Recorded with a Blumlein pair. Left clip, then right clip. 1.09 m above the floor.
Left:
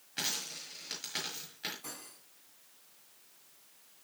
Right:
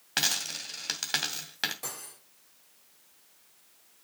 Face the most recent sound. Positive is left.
turn(degrees=-50)